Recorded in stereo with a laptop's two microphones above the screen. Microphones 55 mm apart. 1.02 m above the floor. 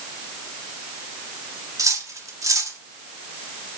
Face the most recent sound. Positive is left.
turn(degrees=-70)  # may be behind; listen again after turning